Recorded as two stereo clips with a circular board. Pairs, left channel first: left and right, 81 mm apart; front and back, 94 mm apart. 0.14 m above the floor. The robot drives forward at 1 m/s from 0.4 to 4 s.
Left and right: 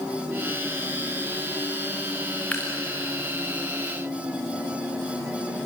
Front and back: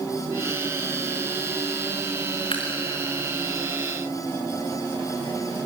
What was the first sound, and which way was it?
Dripping, 15° left.